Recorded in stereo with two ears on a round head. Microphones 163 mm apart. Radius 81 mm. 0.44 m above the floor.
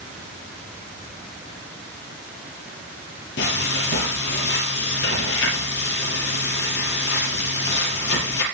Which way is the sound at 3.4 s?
65° left (ahead or behind).